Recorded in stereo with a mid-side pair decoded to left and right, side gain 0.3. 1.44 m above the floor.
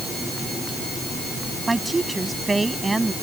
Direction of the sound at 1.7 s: 30° right.